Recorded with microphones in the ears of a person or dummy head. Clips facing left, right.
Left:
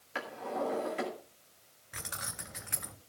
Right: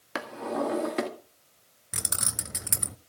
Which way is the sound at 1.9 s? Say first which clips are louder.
Right 6 dB; 50° right (ahead or behind).